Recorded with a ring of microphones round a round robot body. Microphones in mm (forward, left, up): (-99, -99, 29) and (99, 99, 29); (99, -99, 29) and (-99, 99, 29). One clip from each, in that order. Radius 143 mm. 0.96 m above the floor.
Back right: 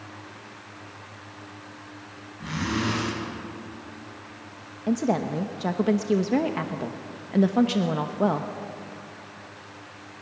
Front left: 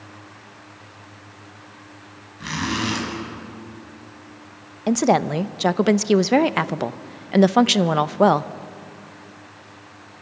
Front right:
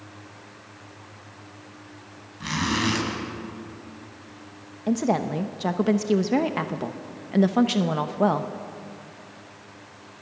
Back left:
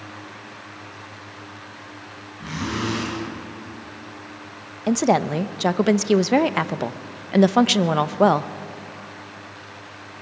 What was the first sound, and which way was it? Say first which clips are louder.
A zipper: front left 4 dB, front right 3 dB; straight ahead.